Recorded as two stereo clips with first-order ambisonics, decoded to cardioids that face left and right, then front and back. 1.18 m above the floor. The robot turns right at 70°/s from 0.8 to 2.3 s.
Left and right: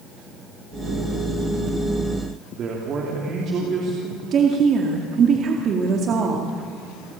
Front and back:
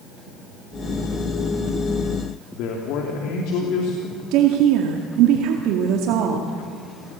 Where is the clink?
I don't hear a clink.